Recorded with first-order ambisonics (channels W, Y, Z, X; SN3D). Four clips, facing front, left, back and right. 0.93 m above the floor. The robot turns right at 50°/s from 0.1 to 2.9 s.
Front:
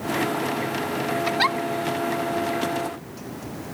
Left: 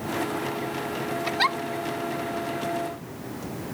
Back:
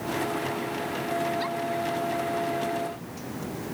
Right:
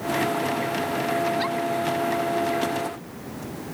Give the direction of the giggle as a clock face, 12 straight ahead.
11 o'clock.